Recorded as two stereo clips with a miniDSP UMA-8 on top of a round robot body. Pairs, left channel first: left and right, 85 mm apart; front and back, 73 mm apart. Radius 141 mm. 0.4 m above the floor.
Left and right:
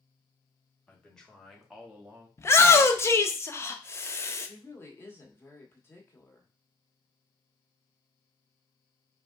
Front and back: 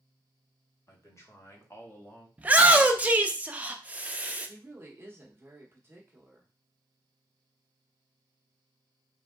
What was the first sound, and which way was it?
A man speaking, 20° left.